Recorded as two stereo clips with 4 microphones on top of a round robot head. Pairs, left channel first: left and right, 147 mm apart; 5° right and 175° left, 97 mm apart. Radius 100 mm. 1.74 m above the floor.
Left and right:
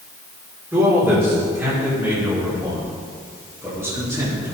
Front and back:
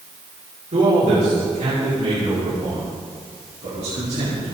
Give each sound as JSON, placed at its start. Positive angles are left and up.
{"t": 0.7, "sound": "a man speaking", "azimuth_deg": -170, "distance_m": 5.5}